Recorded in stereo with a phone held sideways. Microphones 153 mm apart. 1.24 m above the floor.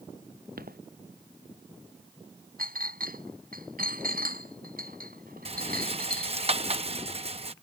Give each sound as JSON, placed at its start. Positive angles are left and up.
{"t": 0.6, "sound": "footsteps", "side_deg": -80}
{"t": 2.6, "sound": "a clink", "side_deg": -75}
{"t": 5.5, "sound": "a rattle", "side_deg": -40}